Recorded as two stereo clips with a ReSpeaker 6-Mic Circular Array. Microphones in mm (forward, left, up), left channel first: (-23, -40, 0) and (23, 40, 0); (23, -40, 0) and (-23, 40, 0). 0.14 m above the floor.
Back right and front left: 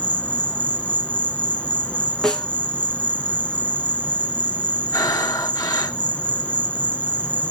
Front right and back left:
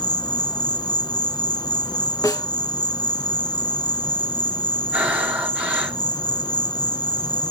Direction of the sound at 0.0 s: 50° right.